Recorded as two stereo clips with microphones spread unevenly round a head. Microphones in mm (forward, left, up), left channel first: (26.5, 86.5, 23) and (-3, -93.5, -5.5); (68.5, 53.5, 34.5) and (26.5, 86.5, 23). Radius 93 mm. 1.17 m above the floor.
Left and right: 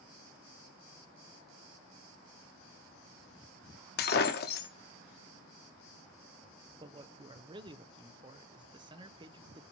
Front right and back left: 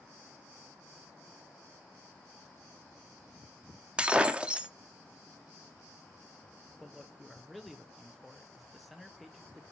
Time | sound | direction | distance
4.0 | breaking glass | 65° left | 1.0 m
6.8 | a man speaking | 140° right | 0.7 m